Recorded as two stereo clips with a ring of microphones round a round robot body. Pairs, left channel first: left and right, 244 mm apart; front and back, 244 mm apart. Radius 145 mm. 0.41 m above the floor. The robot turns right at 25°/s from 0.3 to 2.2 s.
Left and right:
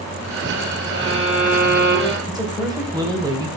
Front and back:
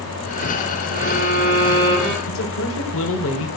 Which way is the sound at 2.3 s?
15° right.